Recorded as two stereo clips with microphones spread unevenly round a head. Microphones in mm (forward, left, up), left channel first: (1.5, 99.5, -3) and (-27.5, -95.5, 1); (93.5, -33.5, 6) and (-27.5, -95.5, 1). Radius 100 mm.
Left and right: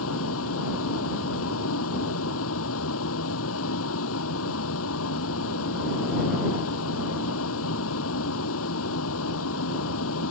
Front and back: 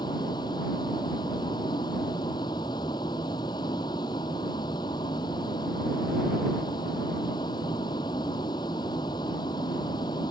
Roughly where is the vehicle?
Left.